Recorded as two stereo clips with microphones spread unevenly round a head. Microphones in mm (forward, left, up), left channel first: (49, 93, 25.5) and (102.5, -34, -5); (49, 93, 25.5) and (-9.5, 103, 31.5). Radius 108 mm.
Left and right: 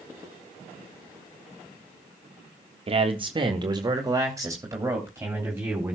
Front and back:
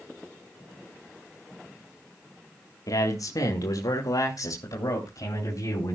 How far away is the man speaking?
About 1.7 m.